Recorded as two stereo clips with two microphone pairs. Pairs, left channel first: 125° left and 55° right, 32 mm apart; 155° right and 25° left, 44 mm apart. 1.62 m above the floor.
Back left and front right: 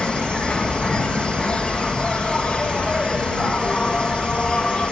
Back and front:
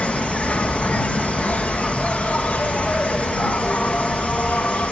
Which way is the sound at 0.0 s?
170° left.